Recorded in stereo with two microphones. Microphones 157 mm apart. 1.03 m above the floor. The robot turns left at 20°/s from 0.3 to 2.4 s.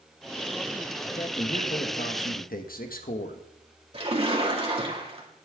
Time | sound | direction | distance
1.1 | a man speaking | 45° left (ahead or behind) | 1.2 m
3.9 | a splash | 35° right (ahead or behind) | 2 m